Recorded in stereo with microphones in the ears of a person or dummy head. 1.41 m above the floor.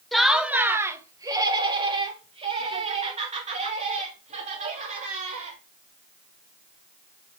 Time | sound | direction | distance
0.1 | laughter | 5° left (ahead or behind) | 0.9 m